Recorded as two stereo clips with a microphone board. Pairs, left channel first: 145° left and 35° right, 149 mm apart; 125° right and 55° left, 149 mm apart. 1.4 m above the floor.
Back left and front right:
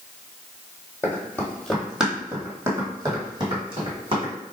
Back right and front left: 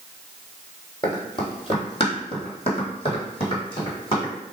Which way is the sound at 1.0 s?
155° right.